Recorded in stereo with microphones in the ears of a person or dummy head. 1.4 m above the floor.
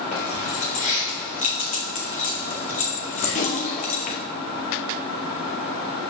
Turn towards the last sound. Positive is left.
turn(degrees=40)  # may be behind; listen again after turning